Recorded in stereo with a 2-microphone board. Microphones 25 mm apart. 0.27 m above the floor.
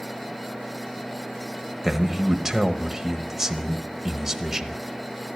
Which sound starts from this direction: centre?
A man speaking, at 1.8 s.